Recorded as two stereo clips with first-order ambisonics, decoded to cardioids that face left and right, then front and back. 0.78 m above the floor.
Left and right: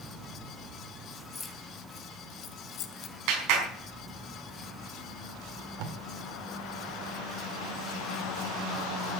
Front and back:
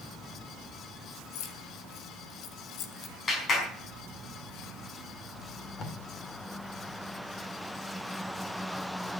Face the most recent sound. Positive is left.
turn(degrees=-65)